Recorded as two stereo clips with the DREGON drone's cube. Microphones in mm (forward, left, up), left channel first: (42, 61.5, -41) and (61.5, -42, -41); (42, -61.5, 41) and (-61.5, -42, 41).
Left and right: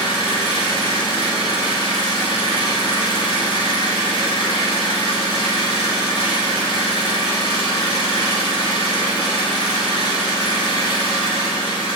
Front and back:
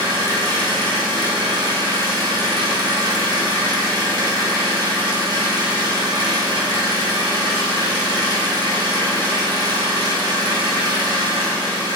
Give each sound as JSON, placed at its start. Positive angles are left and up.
{"t": 0.0, "sound": "an engine running", "azimuth_deg": 125, "distance_m": 2.5}